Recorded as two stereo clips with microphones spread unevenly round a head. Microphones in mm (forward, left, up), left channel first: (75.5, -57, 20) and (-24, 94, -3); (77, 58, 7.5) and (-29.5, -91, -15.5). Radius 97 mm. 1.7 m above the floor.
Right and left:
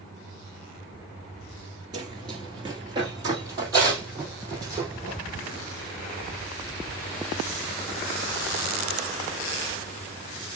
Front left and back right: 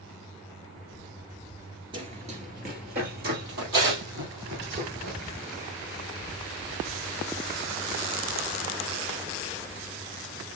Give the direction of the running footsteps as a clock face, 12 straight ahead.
6 o'clock.